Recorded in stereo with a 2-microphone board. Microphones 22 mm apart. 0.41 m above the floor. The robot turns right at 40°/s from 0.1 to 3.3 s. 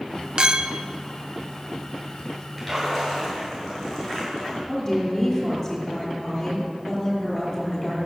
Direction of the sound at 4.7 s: 30° left (ahead or behind).